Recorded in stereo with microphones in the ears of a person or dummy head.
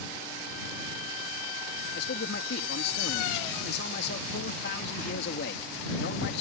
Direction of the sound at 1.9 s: 60° left (ahead or behind).